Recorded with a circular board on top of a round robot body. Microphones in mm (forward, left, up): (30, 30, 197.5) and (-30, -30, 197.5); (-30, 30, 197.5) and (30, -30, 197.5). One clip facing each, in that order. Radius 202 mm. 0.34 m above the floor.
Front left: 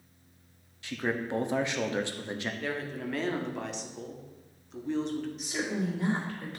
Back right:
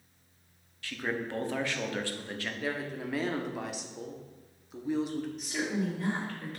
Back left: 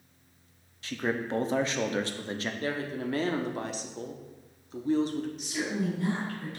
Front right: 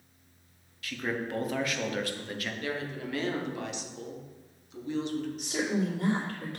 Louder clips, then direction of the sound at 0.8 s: Front left 2 dB, back left 2 dB; 100° left.